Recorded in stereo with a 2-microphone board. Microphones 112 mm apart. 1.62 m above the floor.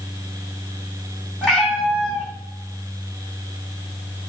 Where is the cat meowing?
Centre (ahead or behind), 2.0 m.